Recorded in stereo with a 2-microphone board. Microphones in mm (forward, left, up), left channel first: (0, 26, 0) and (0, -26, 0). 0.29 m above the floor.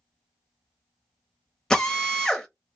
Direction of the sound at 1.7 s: 10° left (ahead or behind).